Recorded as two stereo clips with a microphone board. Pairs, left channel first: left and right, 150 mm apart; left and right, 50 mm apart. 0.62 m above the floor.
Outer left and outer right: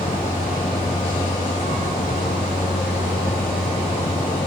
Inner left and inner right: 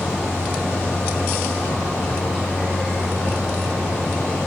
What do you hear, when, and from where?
0.0 s a vehicle: 65° left (ahead or behind)